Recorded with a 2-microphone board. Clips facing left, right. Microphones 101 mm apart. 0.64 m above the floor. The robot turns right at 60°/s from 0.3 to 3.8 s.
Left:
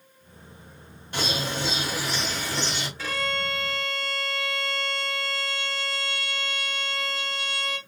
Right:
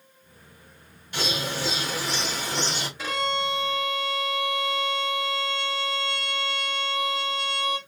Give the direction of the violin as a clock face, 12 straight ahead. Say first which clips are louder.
Right 4 dB; 5 o'clock.